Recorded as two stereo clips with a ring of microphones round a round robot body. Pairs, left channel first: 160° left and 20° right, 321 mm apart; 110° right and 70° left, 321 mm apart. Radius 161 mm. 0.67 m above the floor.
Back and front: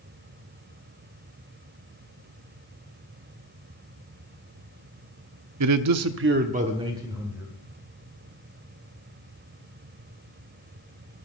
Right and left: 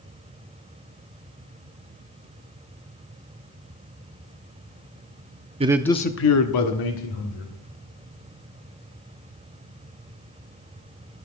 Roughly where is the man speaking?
Ahead.